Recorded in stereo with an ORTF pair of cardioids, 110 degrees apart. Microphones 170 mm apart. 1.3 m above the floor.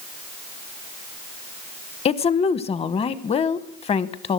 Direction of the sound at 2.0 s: 40° left.